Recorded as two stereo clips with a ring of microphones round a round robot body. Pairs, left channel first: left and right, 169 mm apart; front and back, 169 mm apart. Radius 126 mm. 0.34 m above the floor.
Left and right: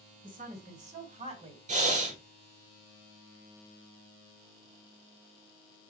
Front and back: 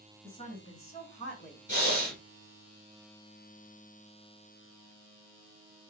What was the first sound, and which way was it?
A woman speaking, 55° right.